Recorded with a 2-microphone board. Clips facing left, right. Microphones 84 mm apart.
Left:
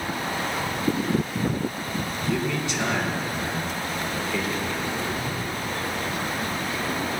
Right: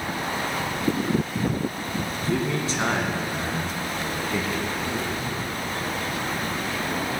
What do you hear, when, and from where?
2.2 s a man speaking: 35° right (ahead or behind), 2.5 m; by 5.2 s 40° right (ahead or behind), 1.9 m